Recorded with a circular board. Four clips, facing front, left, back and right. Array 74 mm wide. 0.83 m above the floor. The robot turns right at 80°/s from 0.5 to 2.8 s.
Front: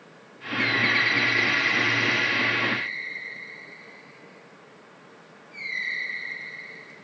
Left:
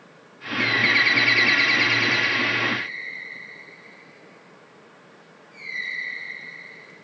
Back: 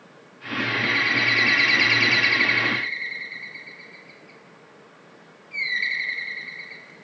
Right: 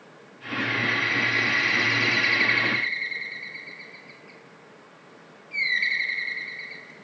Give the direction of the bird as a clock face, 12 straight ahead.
10 o'clock.